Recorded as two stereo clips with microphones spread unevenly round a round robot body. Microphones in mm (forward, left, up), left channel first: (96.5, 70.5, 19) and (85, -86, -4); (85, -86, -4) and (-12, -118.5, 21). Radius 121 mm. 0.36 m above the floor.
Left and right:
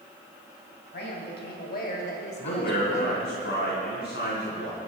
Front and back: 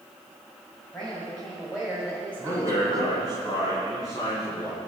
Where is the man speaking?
90° left, 3.5 m.